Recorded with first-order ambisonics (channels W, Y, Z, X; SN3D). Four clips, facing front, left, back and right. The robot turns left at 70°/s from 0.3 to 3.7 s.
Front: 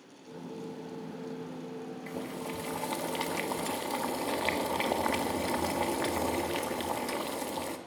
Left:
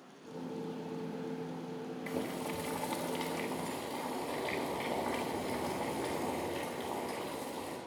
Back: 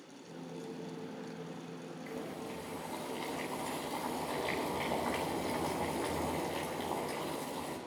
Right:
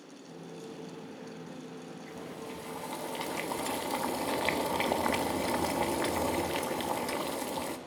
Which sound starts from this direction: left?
Boiling, at 2.1 s.